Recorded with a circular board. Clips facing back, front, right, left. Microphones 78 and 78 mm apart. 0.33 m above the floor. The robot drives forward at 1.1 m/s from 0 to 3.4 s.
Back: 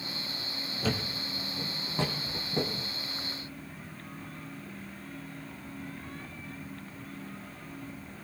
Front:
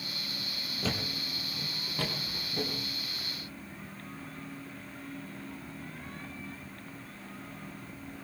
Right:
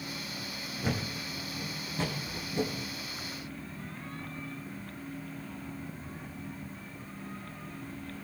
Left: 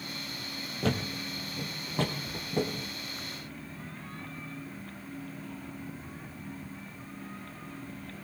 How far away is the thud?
About 3.5 m.